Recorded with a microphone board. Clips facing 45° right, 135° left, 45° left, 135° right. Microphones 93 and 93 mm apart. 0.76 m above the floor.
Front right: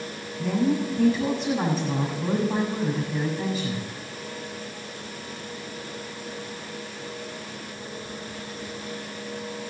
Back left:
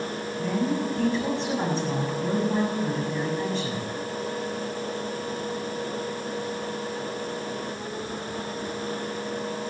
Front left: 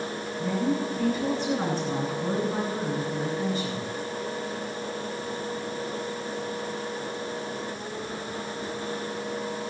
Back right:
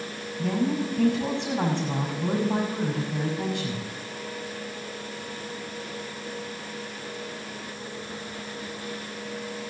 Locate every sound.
0.4 s a woman speaking: 130° right, 7 m